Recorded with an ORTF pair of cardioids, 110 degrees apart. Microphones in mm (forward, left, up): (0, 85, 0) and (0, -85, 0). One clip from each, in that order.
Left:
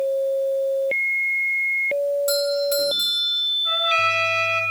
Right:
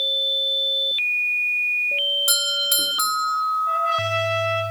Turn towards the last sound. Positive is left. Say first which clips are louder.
# left 2 dB
turn(degrees=45)